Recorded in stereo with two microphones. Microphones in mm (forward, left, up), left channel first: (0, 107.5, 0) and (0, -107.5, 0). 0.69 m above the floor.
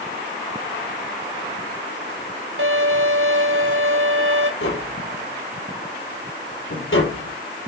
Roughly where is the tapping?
Left.